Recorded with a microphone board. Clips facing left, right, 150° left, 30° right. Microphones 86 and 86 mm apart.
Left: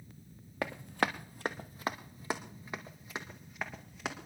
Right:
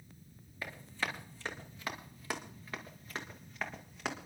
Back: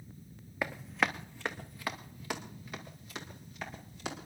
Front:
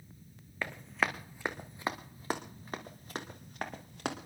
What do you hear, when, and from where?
0.6 s running footsteps: 70° left, 1.2 m; by 4.3 s straight ahead, 2.5 m